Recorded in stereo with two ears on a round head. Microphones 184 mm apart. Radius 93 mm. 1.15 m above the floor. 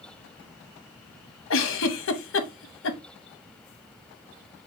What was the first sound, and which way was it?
A giggle, 65° left (ahead or behind).